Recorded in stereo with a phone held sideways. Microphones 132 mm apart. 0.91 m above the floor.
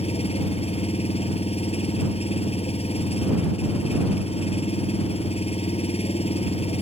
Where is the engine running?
50° left (ahead or behind).